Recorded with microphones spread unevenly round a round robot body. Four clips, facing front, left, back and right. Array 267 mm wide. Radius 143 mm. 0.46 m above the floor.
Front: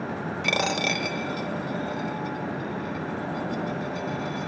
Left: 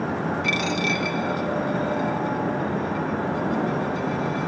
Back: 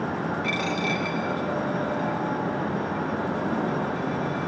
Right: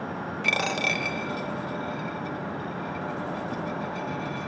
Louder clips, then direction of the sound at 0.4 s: Left 3 dB, even; 5° right.